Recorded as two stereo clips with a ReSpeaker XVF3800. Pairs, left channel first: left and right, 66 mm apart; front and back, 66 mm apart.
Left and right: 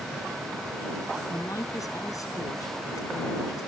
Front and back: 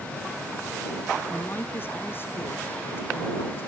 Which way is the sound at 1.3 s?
55° left.